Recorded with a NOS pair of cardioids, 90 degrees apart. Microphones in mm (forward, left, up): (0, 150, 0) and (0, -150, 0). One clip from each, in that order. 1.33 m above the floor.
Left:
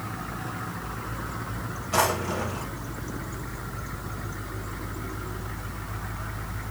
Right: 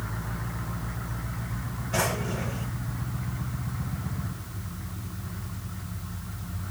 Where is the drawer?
60° left, 3 m.